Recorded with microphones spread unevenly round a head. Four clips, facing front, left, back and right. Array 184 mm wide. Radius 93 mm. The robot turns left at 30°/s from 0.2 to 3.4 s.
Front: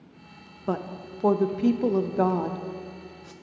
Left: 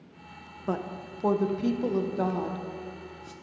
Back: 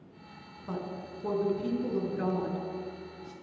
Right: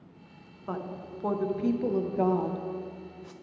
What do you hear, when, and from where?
0.7 s a woman speaking: 35° left, 0.7 m; by 3.3 s 45° right, 0.7 m